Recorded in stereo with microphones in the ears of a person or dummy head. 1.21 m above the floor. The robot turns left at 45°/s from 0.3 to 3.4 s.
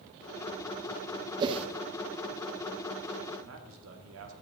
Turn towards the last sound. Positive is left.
turn(degrees=-85)